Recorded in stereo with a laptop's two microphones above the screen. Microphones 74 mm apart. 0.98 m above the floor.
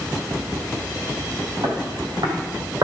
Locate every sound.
1.6 s footsteps: 70° right (ahead or behind), 3 m; by 2.9 s 55° right (ahead or behind), 2.5 m